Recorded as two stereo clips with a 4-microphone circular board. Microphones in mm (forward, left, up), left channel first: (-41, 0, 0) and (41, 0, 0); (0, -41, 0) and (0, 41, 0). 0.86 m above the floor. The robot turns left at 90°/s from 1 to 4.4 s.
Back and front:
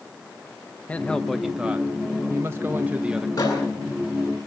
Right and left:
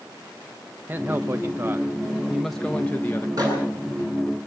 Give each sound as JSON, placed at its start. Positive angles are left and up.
{"t": 0.9, "sound": "a man speaking", "azimuth_deg": 130, "distance_m": 0.7}
{"t": 3.4, "sound": "a microwave", "azimuth_deg": 135, "distance_m": 9.5}